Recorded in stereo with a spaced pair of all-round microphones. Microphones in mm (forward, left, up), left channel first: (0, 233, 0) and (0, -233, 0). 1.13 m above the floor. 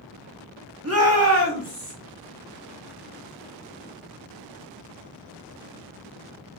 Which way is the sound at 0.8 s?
30° right (ahead or behind).